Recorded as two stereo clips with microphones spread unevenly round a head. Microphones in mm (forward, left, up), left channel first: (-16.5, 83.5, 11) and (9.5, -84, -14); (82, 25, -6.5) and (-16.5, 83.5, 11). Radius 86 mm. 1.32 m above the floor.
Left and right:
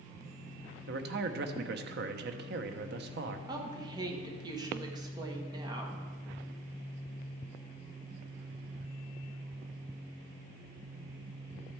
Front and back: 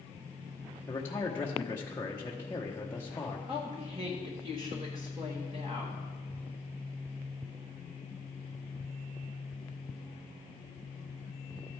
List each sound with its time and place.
0.9 s a man speaking: 105° right, 0.9 m
3.5 s a woman speaking: 145° right, 1.4 m